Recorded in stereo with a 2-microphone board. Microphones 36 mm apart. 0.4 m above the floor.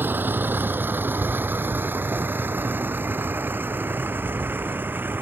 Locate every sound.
0.0 s a vehicle: 75° right (ahead or behind)